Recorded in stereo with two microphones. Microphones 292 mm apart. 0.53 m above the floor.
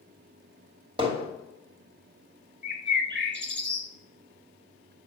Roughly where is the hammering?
Centre.